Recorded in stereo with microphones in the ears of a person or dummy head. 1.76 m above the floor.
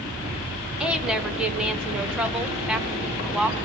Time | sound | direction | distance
0.8 | a woman speaking | 10° right (ahead or behind) | 1.4 m